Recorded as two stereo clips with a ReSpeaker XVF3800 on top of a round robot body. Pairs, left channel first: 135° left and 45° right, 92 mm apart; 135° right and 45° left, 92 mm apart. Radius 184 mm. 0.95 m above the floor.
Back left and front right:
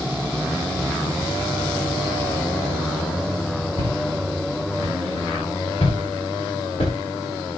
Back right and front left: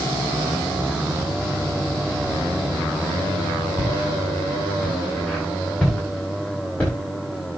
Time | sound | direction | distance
3.8 | footsteps | 130° left | 8 m